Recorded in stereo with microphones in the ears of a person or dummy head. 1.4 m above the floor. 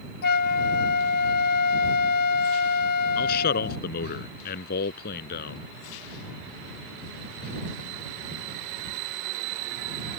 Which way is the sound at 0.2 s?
55° left (ahead or behind).